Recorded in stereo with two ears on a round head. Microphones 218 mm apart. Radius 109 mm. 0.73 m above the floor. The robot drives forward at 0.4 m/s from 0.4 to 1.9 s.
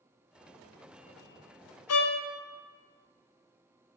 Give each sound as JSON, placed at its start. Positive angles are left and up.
{"t": 1.9, "sound": "a violin", "side_deg": 65, "distance_m": 0.7}